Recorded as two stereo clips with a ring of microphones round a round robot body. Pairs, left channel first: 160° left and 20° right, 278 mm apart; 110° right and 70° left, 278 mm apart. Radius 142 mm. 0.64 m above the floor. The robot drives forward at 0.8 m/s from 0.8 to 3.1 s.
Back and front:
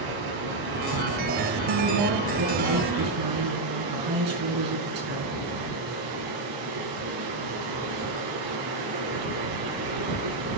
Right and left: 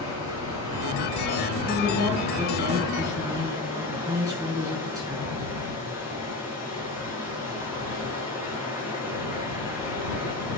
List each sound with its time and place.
0.0 s running water: 10° right, 8 m
1.7 s a woman speaking: 10° right, 7.5 m; by 5.4 s 15° right, 6.5 m